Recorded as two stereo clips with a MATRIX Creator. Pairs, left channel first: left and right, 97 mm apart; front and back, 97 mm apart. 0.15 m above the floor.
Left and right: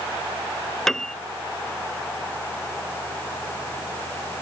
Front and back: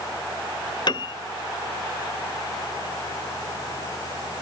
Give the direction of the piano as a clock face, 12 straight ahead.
12 o'clock.